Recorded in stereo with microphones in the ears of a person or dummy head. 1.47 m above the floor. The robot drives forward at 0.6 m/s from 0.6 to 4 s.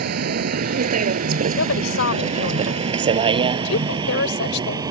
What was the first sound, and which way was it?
A vehicle, 50° right (ahead or behind).